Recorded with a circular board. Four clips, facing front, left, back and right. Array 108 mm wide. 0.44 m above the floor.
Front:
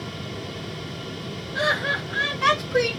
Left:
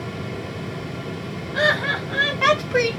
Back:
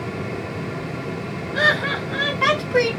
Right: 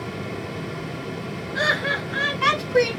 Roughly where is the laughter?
Behind left.